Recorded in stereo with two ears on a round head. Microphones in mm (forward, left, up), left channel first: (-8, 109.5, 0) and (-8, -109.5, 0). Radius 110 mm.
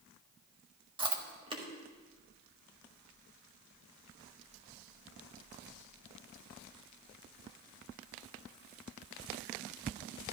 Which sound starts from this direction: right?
Chewing, at 1.0 s.